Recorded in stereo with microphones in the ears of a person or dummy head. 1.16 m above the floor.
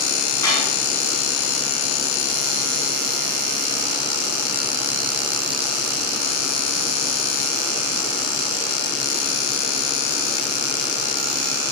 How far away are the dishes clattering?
About 7.5 m.